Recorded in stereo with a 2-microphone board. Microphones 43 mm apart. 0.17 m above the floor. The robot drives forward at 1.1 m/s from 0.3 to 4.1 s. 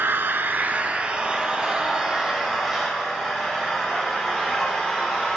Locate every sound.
0.0 s an engine running: 55° right (ahead or behind), 0.7 m; by 5.4 s 10° right (ahead or behind), 4.5 m